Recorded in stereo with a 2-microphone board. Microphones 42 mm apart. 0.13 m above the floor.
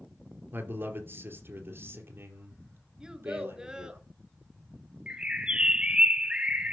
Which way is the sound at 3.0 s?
20° right (ahead or behind).